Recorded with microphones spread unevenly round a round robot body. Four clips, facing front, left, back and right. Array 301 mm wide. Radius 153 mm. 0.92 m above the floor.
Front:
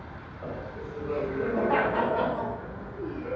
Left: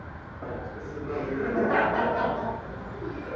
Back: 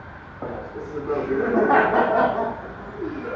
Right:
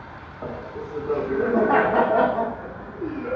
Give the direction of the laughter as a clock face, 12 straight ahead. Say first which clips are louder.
Right 4 dB, back 6 dB; 5 o'clock.